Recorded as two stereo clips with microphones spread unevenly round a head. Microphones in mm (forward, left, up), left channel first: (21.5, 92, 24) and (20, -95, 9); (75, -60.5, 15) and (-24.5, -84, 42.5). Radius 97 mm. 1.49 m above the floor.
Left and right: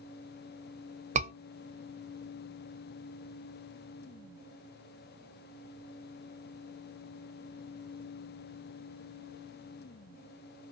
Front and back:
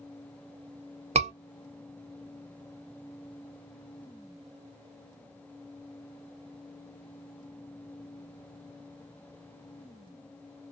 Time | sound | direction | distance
1.1 | a scream | 145° right | 0.9 m